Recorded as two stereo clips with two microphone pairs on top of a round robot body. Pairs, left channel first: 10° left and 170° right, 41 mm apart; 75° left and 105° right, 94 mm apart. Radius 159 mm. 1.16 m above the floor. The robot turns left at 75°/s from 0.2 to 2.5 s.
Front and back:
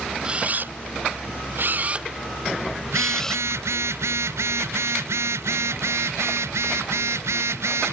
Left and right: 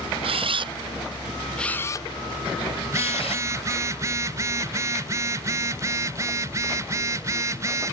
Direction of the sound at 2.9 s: 170° right.